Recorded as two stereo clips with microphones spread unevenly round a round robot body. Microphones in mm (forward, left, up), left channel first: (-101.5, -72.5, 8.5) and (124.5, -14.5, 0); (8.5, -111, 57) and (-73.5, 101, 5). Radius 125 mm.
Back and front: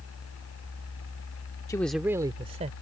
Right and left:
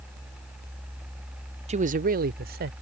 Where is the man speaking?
125° left; by 2.7 s 75° left.